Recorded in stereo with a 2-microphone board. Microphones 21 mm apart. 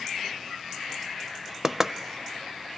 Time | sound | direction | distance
1.6 | knocking | 25° right (ahead or behind) | 0.6 m